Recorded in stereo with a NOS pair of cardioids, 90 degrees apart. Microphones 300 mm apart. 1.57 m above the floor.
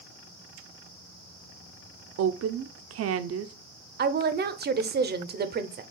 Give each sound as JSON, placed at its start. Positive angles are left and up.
{"t": 2.2, "sound": "a woman speaking", "azimuth_deg": -55, "distance_m": 0.6}
{"t": 4.0, "sound": "a woman speaking", "azimuth_deg": -35, "distance_m": 0.7}